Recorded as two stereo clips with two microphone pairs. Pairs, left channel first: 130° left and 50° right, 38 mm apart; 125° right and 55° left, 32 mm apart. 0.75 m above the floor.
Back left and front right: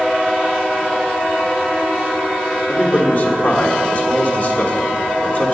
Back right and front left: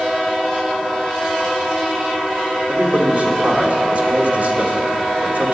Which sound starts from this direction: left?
A man speaking, at 2.7 s.